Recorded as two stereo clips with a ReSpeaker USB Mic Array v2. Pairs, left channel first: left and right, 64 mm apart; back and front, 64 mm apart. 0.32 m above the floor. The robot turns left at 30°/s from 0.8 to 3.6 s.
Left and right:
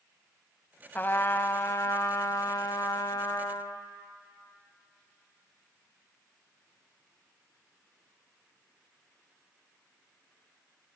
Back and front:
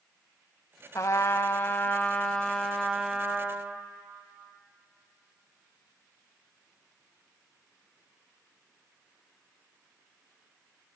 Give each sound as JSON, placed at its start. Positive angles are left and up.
{"t": 0.9, "sound": "a trumpet", "azimuth_deg": 145, "distance_m": 0.5}